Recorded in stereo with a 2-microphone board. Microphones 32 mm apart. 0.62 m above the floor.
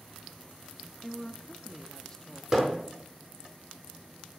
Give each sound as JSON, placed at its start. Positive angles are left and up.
{"t": 1.0, "sound": "a woman speaking", "side_deg": 15, "distance_m": 0.8}
{"t": 2.5, "sound": "hammering", "side_deg": -15, "distance_m": 5.5}